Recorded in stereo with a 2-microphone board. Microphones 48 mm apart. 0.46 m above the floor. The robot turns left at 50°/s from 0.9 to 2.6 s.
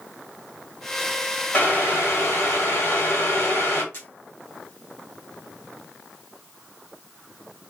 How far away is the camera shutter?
About 1.2 m.